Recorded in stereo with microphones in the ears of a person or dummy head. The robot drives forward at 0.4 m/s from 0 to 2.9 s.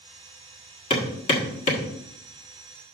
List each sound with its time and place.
0.9 s hammering: 35° left (ahead or behind), 1.6 m; by 1.9 s 40° left (ahead or behind), 1.4 m